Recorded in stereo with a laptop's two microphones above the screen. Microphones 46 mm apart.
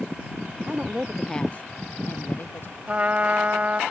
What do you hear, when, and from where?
0.7 s a woman speaking: 35° right (ahead or behind); by 2.8 s 60° left (ahead or behind)
2.9 s a trumpet: 35° right (ahead or behind)